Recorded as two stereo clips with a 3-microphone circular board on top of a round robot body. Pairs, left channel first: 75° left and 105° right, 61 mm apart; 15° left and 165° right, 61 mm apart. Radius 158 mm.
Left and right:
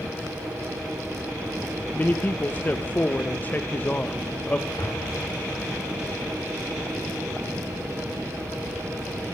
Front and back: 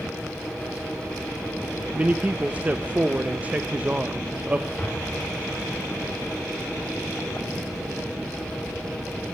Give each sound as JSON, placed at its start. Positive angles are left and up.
{"t": 1.9, "sound": "a man speaking", "azimuth_deg": 130, "distance_m": 0.6}
{"t": 4.8, "sound": "an explosion", "azimuth_deg": 95, "distance_m": 4.0}